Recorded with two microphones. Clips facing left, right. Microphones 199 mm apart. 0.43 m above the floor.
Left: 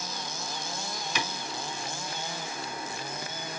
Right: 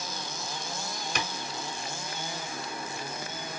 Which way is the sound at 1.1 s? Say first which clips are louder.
Even; 55° right (ahead or behind).